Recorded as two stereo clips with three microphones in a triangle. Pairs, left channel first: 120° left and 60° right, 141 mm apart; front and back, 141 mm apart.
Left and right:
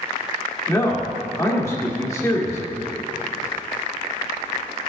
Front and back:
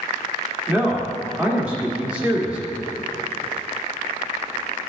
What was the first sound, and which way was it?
A man speaking, 120° left.